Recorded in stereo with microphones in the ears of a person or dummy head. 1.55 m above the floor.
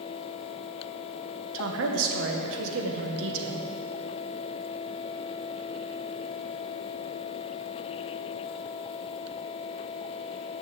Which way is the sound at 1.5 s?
75° right (ahead or behind).